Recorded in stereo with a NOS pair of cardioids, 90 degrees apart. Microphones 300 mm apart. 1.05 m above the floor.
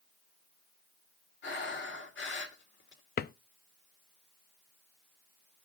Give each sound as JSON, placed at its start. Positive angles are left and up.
{"t": 1.4, "sound": "breathing", "azimuth_deg": 40, "distance_m": 2.5}
{"t": 3.2, "sound": "a drawer", "azimuth_deg": 35, "distance_m": 0.6}